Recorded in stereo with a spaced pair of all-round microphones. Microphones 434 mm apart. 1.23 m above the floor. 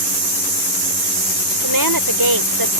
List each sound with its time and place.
1.6 s a woman speaking: 55° right (ahead or behind)